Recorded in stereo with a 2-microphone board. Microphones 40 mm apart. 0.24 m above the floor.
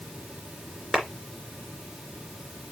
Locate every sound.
0.9 s a clap: centre (ahead or behind), 2.5 m